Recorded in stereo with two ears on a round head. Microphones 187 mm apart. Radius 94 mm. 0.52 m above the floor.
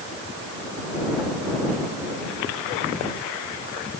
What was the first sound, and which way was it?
Only background noise.